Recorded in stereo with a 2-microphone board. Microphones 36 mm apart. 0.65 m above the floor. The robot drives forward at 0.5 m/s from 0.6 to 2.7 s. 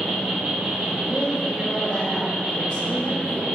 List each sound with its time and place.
0.0 s an insect: 30° right (ahead or behind), 1.6 m; by 3.5 s 20° right (ahead or behind), 2.5 m
1.0 s a woman speaking: 20° left (ahead or behind), 0.9 m; by 3.5 s 25° left (ahead or behind), 0.8 m